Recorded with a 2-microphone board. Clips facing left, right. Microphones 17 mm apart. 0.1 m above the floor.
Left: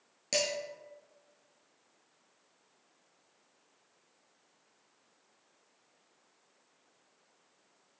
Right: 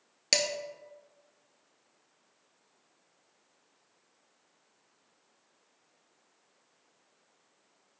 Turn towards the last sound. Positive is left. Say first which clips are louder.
# right 4 dB
turn(degrees=-45)  # may be behind; listen again after turning